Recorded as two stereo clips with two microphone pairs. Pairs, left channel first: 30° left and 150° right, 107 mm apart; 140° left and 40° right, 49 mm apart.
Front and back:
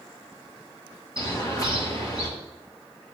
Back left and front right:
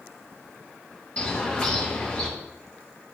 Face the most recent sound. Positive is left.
turn(degrees=75)